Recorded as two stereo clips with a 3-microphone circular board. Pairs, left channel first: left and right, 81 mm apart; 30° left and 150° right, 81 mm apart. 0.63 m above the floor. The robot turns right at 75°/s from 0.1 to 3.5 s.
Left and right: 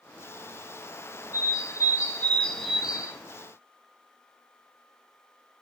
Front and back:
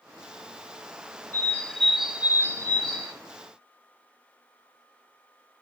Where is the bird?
75° left, 1.6 m; by 3.1 s 150° right, 1.6 m.